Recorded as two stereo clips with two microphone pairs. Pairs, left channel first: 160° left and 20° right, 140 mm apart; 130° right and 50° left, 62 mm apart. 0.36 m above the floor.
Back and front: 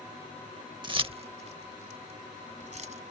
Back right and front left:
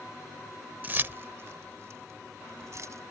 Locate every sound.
0.8 s keys jangling: 10° left; by 3.0 s 15° left